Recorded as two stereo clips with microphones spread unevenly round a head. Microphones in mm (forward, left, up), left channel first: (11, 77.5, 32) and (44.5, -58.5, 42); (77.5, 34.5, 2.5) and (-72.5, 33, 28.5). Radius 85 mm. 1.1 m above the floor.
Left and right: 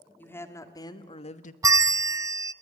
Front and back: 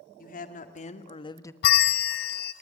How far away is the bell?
About 0.7 m.